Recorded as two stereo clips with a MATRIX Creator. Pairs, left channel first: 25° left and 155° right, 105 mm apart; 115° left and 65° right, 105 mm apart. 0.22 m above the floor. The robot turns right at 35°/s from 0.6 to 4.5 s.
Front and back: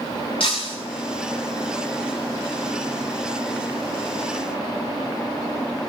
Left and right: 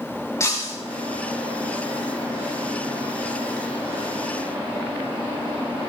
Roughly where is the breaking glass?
Ahead left.